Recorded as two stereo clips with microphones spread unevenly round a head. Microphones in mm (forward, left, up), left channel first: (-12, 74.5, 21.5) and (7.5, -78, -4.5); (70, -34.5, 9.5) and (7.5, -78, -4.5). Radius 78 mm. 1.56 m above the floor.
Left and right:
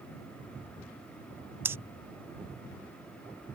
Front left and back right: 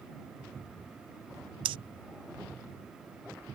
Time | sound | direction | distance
1.6 | breathing | 160° right | ?